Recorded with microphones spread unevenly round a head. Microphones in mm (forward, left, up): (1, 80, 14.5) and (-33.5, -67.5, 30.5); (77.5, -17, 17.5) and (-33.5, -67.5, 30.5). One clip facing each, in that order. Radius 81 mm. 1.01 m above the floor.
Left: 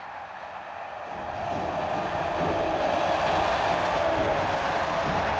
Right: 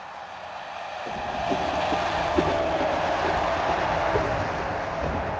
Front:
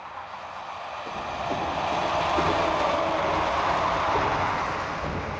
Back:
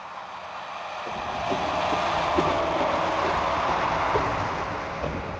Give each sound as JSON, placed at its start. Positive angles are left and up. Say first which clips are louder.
{"t": 1.1, "sound": "running footsteps", "louder": "right 5 dB, back 2 dB", "azimuth_deg": -70, "distance_m": 3.5}